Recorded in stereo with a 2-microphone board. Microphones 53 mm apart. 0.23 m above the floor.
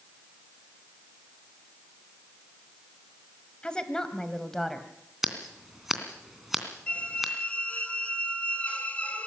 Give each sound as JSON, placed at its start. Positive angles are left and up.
{"t": 3.6, "sound": "a woman speaking", "side_deg": 20, "distance_m": 1.4}
{"t": 5.2, "sound": "scissors", "side_deg": -5, "distance_m": 2.5}
{"t": 6.9, "sound": "a squeak", "side_deg": 25, "distance_m": 1.4}